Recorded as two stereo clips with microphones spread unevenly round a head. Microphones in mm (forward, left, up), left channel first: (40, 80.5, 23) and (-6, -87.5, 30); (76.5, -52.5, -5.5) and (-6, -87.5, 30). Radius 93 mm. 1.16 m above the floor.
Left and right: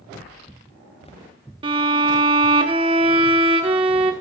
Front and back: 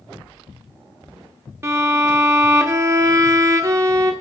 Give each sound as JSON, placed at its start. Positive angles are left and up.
{"t": 1.6, "sound": "a violin", "azimuth_deg": -160, "distance_m": 0.9}